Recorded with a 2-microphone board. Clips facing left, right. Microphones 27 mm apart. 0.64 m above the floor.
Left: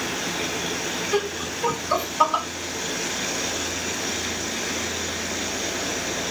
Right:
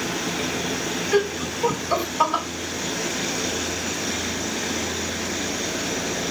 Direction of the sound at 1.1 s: 10° right (ahead or behind).